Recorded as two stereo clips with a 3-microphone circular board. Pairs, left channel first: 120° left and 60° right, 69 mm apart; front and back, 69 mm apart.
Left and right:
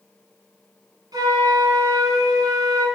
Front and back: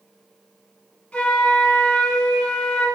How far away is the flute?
About 3 m.